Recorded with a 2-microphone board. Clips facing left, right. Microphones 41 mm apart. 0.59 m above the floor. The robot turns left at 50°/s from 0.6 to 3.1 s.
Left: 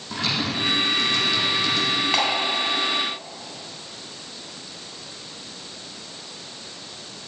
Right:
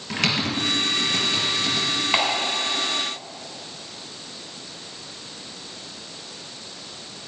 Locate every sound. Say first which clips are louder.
0.1 s typing on a keyboard: right 2 dB; 65° right (ahead or behind), 3.5 m; by 1.9 s centre (ahead or behind), 3.5 m
2.1 s a clap: right 2 dB; 15° right (ahead or behind), 3 m; by 2.3 s 5° right (ahead or behind), 3 m